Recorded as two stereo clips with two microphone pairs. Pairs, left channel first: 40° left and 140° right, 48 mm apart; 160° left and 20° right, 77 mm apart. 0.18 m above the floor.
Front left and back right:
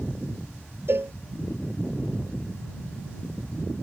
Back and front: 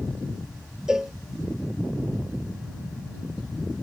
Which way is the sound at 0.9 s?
100° right.